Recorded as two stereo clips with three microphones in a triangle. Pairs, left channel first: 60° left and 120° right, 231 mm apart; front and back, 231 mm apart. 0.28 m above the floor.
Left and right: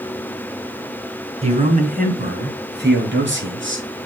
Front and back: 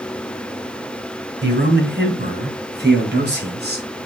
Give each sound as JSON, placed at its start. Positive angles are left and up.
{"t": 1.4, "sound": "a man speaking", "azimuth_deg": -175, "distance_m": 2.0}